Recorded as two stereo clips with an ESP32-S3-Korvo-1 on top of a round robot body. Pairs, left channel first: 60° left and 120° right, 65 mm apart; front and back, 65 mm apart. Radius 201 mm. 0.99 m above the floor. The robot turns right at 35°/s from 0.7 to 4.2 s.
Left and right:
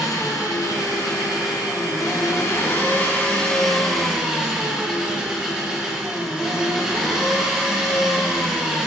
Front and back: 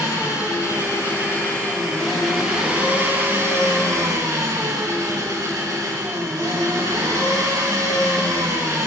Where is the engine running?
40° left, 6.5 m; by 8.9 s 165° left, 6.5 m.